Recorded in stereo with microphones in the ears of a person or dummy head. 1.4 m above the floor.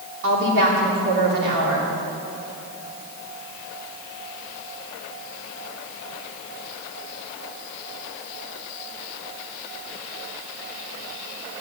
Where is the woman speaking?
65° right (ahead or behind), 3 m.